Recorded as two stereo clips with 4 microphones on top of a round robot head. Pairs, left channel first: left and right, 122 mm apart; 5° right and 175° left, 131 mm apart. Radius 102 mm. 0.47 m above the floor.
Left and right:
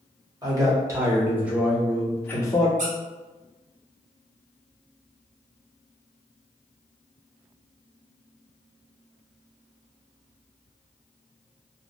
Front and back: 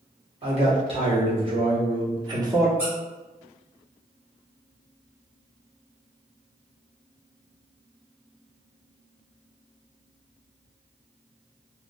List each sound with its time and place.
0.4 s a man speaking: 145° right, 1.5 m; by 2.7 s 120° left, 0.9 m
2.8 s a squeak: 105° right, 1.1 m